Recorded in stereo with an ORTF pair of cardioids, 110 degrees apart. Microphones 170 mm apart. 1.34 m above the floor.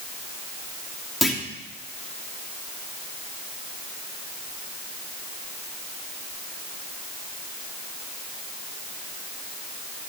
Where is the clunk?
Straight ahead, 2.5 m.